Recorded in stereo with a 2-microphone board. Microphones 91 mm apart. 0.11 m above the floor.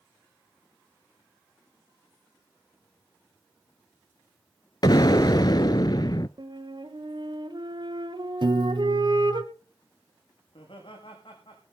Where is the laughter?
65° left (ahead or behind), 7.5 m.